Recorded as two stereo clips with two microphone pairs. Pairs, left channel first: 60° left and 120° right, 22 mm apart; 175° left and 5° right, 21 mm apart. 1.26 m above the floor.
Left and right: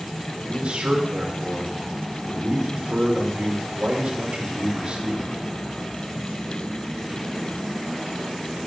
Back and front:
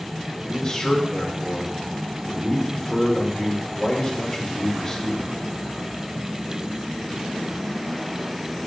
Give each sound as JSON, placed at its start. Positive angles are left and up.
{"t": 0.5, "sound": "a man speaking", "azimuth_deg": -115, "distance_m": 3.0}